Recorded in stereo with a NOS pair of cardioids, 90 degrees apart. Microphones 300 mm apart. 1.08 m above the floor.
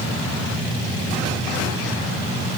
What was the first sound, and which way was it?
Only background noise.